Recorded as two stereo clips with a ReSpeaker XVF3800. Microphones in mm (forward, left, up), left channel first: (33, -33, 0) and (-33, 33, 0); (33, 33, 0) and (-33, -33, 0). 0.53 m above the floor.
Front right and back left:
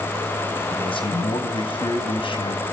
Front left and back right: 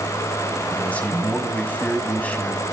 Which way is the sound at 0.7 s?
30° right.